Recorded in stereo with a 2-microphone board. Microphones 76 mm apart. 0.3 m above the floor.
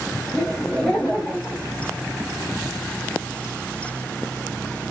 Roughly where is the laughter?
Centre.